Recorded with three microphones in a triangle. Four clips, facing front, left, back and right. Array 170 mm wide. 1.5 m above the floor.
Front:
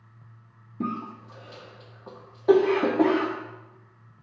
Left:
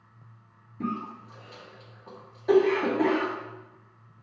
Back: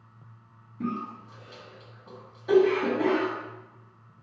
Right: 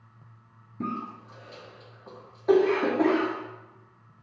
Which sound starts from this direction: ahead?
A cough, at 0.8 s.